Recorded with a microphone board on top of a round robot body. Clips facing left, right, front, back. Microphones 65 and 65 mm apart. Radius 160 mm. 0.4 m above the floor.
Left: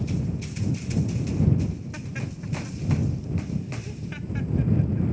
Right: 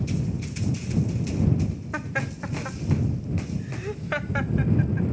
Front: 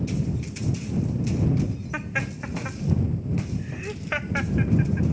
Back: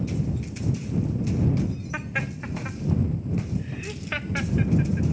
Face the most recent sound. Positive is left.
turn(degrees=-70)